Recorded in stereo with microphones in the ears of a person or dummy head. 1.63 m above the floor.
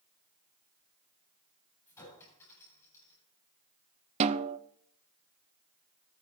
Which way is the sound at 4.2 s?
35° right (ahead or behind).